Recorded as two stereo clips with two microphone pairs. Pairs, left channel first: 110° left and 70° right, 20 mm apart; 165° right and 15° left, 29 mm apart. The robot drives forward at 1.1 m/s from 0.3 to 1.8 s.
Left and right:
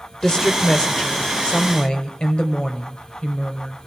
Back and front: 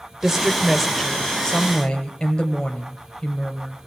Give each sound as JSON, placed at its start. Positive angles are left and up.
{"t": 0.2, "sound": "a woman speaking", "azimuth_deg": 85, "distance_m": 1.9}